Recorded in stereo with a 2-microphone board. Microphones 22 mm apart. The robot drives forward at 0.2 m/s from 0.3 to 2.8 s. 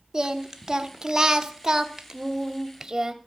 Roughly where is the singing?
Right.